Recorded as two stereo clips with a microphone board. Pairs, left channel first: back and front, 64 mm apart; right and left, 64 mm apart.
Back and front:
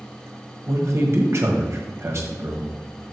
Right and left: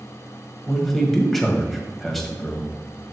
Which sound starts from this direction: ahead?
A man speaking, at 0.7 s.